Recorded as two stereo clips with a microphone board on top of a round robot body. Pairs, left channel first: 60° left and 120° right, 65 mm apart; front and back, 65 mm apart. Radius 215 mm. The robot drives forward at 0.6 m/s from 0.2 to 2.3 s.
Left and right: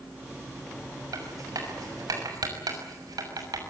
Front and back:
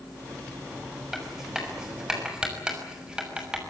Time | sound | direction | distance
1.1 | writing | 95° right | 6.5 m